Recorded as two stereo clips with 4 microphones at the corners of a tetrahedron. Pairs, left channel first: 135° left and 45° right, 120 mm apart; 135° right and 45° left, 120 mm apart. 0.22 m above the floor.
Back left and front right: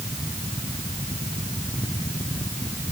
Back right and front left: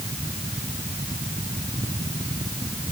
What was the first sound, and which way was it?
Only background noise.